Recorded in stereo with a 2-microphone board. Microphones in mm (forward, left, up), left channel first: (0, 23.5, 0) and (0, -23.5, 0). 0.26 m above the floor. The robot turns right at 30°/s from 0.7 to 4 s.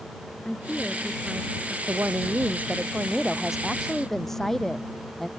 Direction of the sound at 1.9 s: 55° right.